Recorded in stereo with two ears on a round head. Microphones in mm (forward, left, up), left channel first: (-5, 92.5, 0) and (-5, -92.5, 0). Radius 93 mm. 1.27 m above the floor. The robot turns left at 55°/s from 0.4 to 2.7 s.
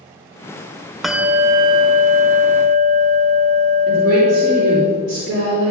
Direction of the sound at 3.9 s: 45° right (ahead or behind).